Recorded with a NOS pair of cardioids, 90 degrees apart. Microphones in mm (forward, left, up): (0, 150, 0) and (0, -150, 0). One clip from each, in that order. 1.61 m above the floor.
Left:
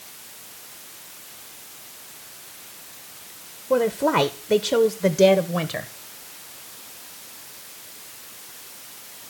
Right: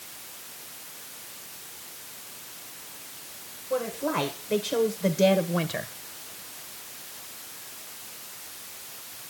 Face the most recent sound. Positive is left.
turn(degrees=5)